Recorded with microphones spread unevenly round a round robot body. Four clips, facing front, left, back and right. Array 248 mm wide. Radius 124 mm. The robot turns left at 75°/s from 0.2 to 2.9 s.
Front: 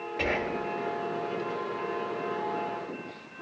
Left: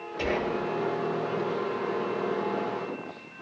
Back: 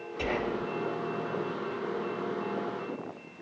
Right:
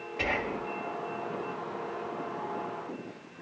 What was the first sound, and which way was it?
Whispering, 40° left.